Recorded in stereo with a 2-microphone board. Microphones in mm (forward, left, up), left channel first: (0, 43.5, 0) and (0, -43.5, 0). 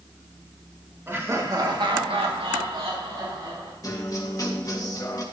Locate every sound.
1.1 s laughter: 25° right (ahead or behind), 2.0 m; by 3.7 s 55° right (ahead or behind), 3.5 m
3.8 s a guitar: 40° left (ahead or behind), 1.2 m